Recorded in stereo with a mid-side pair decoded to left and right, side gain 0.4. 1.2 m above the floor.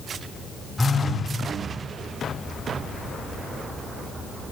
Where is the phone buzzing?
10° left, 1.9 m.